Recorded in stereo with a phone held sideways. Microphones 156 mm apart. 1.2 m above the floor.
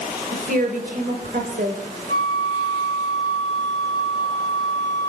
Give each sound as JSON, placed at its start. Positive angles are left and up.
{"t": 0.3, "sound": "a woman speaking", "side_deg": -65, "distance_m": 4.5}
{"t": 2.1, "sound": "a flute", "side_deg": 20, "distance_m": 5.0}